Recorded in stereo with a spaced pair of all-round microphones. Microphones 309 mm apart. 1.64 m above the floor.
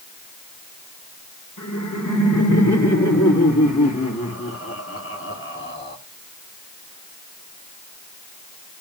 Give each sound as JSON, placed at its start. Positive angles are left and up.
{"t": 1.6, "sound": "laughter", "side_deg": 75, "distance_m": 5.0}